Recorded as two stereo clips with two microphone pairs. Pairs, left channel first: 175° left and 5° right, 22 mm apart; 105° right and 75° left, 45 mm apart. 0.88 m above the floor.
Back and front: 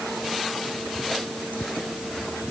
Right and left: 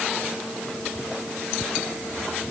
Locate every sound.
Only background noise.